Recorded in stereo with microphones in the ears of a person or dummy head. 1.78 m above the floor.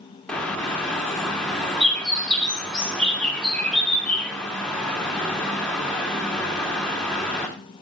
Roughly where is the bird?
Centre.